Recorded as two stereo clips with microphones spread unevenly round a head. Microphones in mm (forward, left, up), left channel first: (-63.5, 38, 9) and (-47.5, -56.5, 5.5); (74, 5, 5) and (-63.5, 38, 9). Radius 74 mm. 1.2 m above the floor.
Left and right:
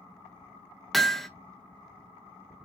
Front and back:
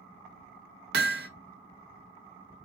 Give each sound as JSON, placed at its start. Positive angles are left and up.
{"t": 0.9, "sound": "hammering", "azimuth_deg": -170, "distance_m": 1.1}